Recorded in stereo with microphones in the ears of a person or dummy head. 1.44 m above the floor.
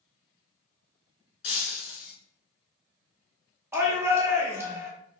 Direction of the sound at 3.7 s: 10° right (ahead or behind).